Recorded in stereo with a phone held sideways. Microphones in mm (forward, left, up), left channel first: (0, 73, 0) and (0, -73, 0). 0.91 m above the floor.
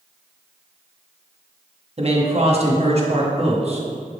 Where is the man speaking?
45° right (ahead or behind), 1.1 m.